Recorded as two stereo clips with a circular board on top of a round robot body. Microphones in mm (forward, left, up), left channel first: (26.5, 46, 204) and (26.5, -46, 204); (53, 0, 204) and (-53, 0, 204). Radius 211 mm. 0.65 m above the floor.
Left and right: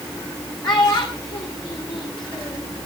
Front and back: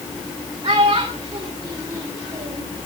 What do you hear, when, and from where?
0.6 s a child speaking: 130° left, 2.5 m